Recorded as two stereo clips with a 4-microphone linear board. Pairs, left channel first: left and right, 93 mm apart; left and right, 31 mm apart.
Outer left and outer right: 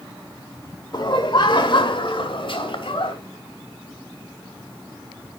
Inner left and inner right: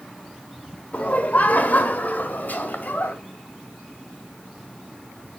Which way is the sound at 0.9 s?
50° left (ahead or behind).